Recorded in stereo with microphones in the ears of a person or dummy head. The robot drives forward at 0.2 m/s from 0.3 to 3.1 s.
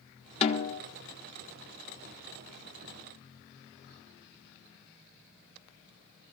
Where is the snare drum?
35° left (ahead or behind), 0.9 m.